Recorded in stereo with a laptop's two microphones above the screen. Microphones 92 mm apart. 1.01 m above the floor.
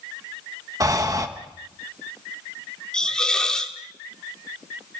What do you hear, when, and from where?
0.8 s breathing: 40° right (ahead or behind), 1.0 m
2.9 s a hiss: 10° left (ahead or behind), 1.7 m